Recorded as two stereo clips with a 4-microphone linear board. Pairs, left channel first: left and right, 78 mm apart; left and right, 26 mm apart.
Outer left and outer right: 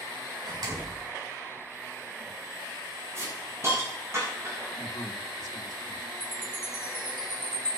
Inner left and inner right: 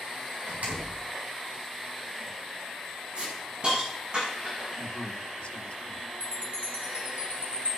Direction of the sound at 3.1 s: 35° right (ahead or behind).